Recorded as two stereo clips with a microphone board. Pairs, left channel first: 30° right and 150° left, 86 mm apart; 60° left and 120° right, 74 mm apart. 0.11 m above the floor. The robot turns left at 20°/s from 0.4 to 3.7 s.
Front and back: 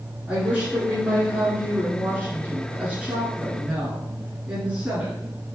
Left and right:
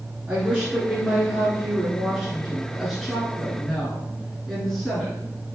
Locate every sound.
0.3 s a woman speaking: 165° right, 1.4 m; by 5.2 s 130° left, 1.4 m